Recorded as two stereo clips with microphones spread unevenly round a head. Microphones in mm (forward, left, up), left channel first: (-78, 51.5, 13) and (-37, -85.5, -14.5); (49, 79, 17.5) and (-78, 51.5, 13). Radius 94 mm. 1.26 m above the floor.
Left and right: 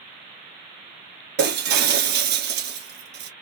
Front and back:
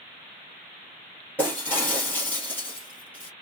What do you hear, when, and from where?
1.4 s breaking glass: 65° right, 2 m